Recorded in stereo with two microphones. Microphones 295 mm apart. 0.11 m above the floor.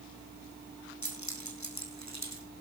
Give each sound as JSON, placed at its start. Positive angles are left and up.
{"t": 1.0, "sound": "keys jangling", "side_deg": 75, "distance_m": 3.5}